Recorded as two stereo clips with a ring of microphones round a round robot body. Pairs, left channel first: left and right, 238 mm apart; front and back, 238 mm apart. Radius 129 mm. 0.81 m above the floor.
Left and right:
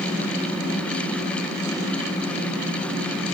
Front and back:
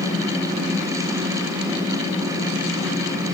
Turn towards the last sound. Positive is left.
No sound to turn to.